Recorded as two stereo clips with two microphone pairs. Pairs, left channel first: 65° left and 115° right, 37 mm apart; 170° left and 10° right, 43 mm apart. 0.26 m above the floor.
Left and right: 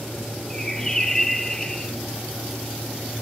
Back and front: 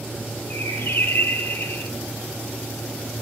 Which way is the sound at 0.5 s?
145° left.